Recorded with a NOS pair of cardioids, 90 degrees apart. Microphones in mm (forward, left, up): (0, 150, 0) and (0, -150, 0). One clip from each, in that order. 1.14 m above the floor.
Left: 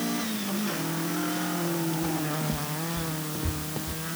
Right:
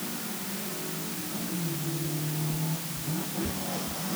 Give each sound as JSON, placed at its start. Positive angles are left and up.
{"t": 2.0, "sound": "footsteps", "azimuth_deg": 65}